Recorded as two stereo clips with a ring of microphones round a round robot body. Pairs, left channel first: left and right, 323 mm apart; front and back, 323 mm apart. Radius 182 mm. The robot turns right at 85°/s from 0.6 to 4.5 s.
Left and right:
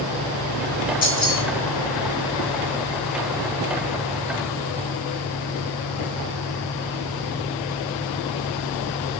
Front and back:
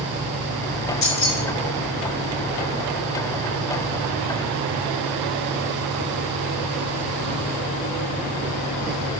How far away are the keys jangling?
About 3 m.